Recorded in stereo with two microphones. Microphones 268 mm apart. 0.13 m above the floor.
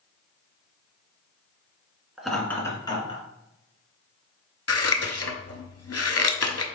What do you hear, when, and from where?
2.2 s laughter: 5° right (ahead or behind), 1.4 m; by 3.2 s 25° left (ahead or behind), 1.8 m
4.7 s scissors: 65° left (ahead or behind), 0.6 m